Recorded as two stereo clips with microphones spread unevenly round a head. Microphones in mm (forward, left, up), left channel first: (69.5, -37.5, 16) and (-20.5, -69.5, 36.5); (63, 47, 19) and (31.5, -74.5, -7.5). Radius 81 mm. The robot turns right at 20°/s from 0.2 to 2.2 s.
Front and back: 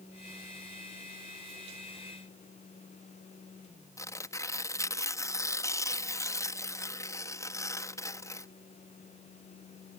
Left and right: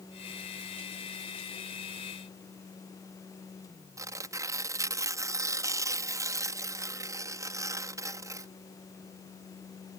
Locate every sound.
4.0 s tearing paper: 40° right